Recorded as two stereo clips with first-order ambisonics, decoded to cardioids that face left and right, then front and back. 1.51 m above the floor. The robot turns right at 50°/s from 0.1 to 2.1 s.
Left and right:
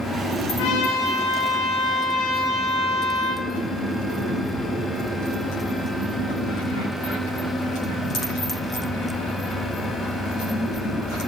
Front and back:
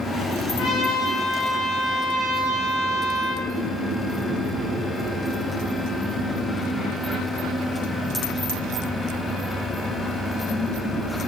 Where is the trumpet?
60° left, 1.0 m; by 3.5 s 135° left, 1.0 m.